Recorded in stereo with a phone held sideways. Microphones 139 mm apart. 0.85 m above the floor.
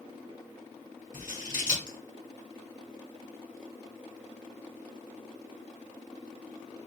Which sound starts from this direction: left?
Scissors, at 1.1 s.